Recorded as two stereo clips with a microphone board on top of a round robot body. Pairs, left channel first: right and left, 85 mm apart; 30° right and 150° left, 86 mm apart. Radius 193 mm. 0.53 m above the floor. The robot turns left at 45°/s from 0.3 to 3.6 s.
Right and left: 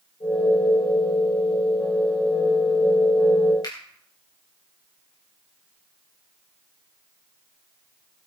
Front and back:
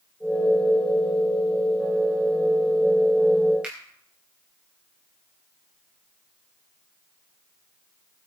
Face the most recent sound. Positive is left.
turn(degrees=-135)